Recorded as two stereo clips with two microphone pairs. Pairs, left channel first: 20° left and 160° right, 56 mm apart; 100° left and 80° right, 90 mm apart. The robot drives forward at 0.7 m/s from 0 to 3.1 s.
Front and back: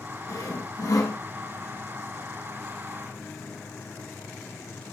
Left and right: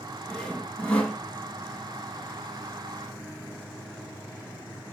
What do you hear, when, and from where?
0.3 s sawing: 20° left, 3.5 m; by 1.2 s 25° left, 3 m